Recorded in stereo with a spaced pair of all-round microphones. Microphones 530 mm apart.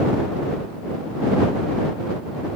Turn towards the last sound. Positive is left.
No sound to turn to.